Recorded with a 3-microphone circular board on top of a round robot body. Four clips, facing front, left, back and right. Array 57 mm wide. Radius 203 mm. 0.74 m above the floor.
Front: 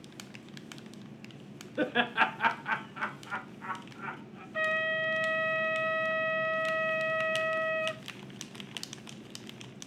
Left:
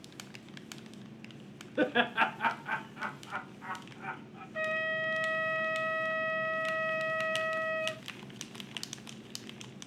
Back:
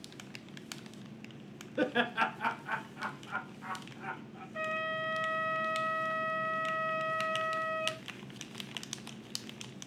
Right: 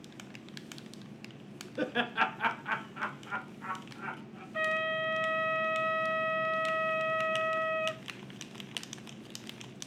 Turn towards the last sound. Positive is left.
turn(degrees=-35)